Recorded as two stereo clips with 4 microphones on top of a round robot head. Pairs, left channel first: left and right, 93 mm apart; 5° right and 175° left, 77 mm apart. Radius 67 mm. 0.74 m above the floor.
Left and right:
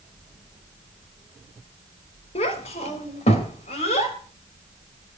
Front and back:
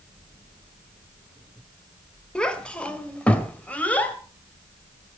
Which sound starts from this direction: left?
A child speaking, at 2.4 s.